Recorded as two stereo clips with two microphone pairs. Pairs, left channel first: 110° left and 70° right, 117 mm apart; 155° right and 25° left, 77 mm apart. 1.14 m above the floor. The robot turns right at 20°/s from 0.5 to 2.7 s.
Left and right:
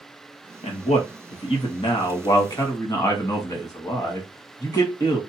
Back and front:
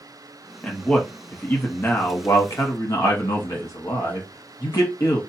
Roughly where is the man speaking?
Behind left.